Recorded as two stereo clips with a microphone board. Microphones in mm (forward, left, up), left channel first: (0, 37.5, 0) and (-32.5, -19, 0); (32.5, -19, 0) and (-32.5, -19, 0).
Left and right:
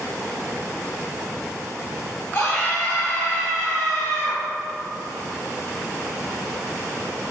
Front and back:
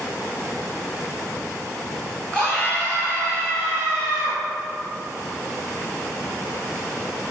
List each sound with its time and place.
2.3 s a scream: 65° left, 1.9 m